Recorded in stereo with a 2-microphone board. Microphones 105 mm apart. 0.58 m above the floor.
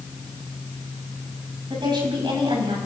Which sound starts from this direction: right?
A woman speaking, at 1.7 s.